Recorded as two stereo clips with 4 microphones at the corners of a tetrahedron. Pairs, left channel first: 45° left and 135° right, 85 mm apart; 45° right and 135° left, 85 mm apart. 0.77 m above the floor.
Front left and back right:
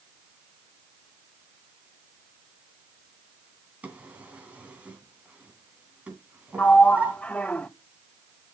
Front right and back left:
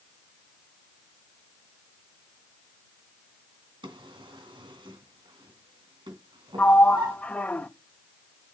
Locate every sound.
3.8 s a drawer: 150° left, 3 m
6.6 s a sliding door: 5° right, 0.7 m